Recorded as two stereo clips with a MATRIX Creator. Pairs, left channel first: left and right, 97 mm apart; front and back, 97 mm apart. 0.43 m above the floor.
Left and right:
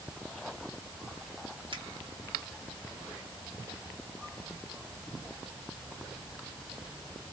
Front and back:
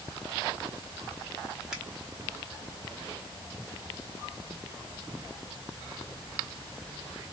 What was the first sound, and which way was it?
A finger snap, 95° right.